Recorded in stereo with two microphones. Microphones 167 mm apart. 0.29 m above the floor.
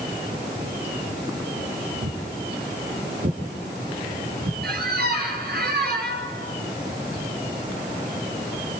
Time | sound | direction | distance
2.0 | footsteps | 75° right (ahead or behind) | 3.5 m
4.6 | a squeak | 60° right (ahead or behind) | 3.5 m